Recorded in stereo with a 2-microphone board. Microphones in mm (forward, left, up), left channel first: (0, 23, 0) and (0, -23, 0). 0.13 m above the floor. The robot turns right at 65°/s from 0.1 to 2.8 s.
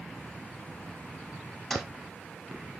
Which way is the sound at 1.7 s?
5° left (ahead or behind).